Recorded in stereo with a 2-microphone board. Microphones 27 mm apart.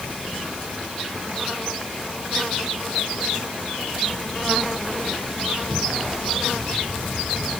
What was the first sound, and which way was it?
Only background noise.